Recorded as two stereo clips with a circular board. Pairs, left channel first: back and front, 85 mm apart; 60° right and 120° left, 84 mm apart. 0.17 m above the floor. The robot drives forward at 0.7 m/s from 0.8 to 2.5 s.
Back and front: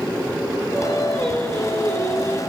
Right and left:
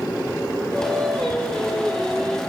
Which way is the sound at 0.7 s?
15° left.